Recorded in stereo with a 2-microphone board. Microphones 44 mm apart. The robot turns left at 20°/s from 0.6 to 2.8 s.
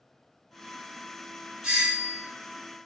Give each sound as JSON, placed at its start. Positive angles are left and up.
{"t": 1.6, "sound": "a doorbell", "side_deg": -15, "distance_m": 1.7}